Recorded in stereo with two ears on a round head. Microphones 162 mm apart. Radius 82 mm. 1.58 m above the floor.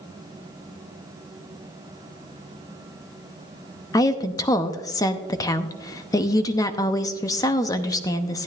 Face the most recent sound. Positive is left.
turn(degrees=20)  # may be behind; listen again after turning